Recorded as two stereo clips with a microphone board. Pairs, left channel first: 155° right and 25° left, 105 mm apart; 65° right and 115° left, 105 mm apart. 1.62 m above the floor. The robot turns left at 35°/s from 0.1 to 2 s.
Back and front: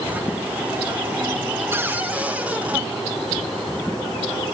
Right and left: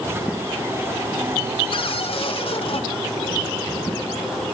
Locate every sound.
1.7 s a cupboard door: 45° right, 2.5 m; by 2.8 s 55° right, 2.5 m